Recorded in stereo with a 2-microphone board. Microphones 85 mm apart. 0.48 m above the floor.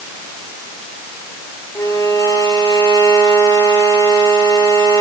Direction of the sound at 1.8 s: 45° left (ahead or behind).